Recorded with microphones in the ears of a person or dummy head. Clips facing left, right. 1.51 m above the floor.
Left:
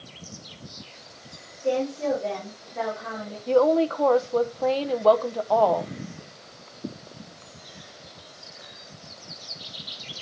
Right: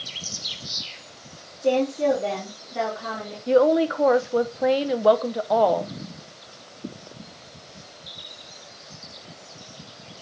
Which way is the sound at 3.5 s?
10° right (ahead or behind).